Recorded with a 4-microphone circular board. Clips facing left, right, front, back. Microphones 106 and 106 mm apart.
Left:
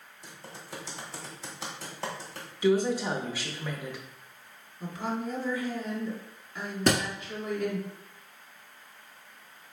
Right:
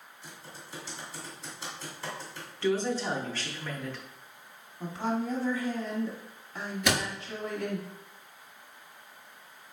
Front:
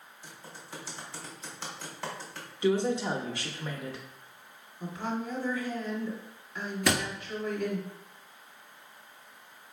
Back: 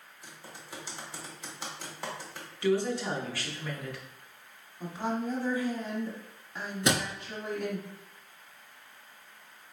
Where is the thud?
125° left, 1.0 m.